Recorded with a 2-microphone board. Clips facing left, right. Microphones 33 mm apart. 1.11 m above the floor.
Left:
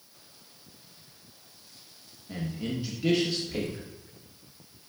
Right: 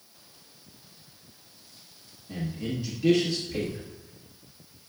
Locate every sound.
2.3 s a man speaking: 15° left (ahead or behind), 1.0 m